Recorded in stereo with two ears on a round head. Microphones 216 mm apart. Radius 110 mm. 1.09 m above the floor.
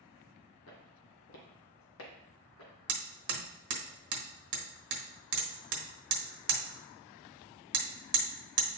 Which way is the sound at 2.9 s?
50° right (ahead or behind).